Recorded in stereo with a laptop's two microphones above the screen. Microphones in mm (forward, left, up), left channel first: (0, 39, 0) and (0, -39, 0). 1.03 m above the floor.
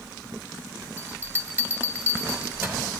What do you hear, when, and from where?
1.0 s a bell: 30° right (ahead or behind), 1.7 m